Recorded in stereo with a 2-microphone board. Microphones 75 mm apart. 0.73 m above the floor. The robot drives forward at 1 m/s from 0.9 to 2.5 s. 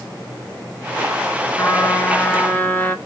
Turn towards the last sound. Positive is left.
turn(degrees=20)  # may be behind; listen again after turning